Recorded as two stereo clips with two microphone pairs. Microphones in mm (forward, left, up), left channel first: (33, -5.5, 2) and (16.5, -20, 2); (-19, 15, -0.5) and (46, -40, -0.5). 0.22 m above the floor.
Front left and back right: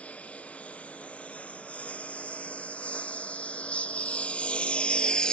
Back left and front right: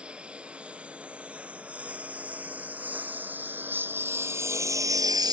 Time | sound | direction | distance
0.0 | a lawn mower | 40° left | ?